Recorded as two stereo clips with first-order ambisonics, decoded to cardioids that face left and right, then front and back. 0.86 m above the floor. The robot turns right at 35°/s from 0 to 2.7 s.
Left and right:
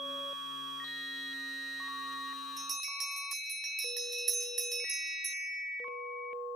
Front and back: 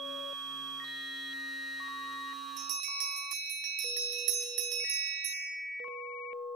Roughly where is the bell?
Behind.